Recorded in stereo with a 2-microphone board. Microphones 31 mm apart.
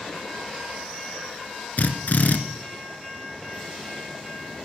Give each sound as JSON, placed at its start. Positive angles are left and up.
{"t": 1.8, "sound": "a drill", "side_deg": 65, "distance_m": 2.0}